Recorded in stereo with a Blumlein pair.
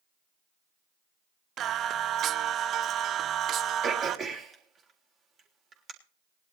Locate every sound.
1.6 s singing: 30° right, 0.6 m
3.8 s throat clearing: 20° right, 3 m